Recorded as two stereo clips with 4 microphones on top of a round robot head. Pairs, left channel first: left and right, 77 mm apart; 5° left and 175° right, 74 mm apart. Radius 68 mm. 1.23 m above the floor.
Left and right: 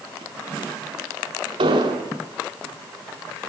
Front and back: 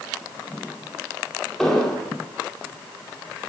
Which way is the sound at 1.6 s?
80° right.